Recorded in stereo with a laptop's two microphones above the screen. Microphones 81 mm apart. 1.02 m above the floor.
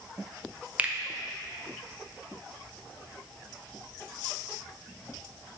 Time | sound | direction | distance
0.8 | a finger snap | 20° right (ahead or behind) | 0.8 m